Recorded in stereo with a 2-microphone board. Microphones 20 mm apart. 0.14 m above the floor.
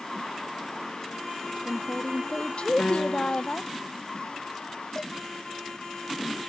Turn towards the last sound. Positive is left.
turn(degrees=20)  # may be behind; listen again after turning